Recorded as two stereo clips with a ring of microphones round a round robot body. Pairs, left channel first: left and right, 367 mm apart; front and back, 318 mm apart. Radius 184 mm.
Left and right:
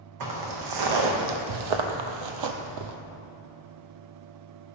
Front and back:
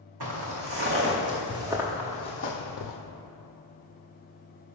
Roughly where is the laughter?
No laughter in this recording.